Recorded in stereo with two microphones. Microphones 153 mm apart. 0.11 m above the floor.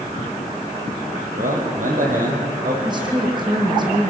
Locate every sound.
1.4 s a man speaking: 60° right (ahead or behind), 5.5 m
2.9 s a woman speaking: 30° right (ahead or behind), 5.5 m